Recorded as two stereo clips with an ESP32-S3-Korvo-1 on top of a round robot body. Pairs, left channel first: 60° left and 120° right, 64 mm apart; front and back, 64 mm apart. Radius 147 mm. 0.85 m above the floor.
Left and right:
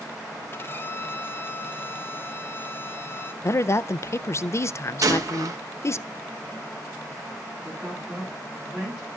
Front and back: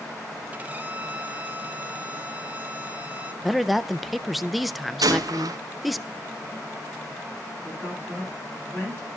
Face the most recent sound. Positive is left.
turn(degrees=-50)